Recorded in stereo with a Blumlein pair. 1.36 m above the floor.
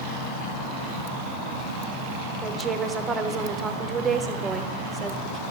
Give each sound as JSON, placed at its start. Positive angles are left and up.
{"t": 2.4, "sound": "a woman speaking", "azimuth_deg": -15, "distance_m": 1.0}